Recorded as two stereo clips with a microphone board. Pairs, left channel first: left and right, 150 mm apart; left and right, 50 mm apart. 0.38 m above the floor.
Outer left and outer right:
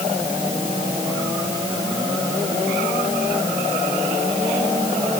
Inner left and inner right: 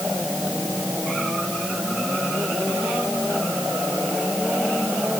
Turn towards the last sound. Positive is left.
No sound to turn to.